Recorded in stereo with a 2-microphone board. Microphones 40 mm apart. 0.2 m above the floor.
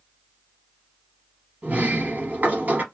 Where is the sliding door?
40° right (ahead or behind), 1.1 m.